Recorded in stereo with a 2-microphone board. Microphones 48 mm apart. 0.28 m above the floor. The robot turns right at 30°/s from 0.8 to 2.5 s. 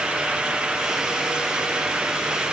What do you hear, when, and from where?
Only background noise.